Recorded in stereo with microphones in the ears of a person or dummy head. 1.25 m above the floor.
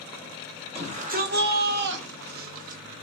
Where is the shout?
25° right (ahead or behind), 0.8 m; by 2.8 s 45° right (ahead or behind), 0.8 m.